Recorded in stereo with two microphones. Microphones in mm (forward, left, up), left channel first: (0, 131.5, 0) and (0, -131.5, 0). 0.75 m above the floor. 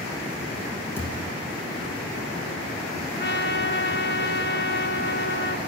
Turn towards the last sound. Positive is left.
turn(degrees=45)  # may be behind; listen again after turning